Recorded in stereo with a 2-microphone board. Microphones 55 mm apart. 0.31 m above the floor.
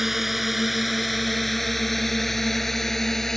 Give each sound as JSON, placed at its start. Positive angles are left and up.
{"t": 0.0, "sound": "a drone", "side_deg": -5}